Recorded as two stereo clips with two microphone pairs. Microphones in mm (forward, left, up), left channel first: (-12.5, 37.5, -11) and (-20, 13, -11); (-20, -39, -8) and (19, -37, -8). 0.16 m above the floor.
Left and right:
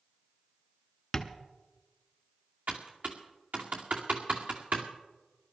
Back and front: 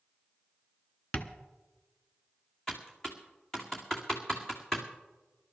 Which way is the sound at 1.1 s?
145° left.